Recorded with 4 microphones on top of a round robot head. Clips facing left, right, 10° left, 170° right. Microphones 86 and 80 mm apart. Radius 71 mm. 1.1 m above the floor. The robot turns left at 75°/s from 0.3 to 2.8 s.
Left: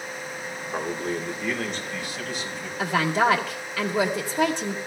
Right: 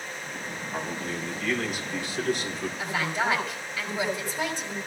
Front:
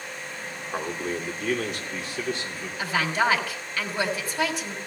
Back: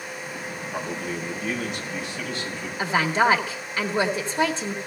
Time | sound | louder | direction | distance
0.7 | a man speaking | left 5 dB, front 2 dB | 70° left | 2.5 m
2.8 | a woman speaking | left 8 dB, back 3 dB | 130° left | 1.6 m